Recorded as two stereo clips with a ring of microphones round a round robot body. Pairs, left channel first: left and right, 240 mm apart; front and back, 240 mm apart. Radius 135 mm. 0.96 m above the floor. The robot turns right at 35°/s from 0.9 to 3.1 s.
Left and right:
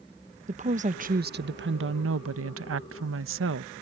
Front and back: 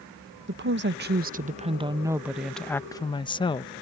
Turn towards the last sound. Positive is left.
turn(degrees=-70)